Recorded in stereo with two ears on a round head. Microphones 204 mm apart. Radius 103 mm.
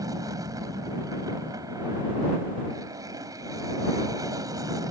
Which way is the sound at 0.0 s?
15° right (ahead or behind).